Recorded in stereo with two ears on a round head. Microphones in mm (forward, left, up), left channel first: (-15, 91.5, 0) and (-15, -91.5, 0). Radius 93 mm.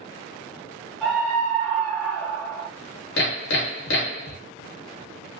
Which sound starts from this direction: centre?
A scream, at 1.0 s.